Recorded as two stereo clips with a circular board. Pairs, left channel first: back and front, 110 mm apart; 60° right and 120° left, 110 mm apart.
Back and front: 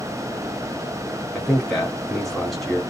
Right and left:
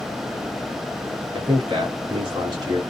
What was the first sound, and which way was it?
A man speaking, 95° left.